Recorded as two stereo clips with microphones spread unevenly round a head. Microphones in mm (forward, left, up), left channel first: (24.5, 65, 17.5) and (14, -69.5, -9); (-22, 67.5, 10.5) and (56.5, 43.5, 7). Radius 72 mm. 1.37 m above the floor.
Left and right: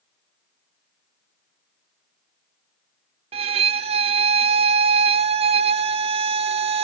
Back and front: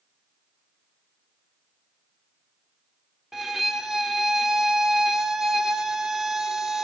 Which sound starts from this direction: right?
A violin, at 3.3 s.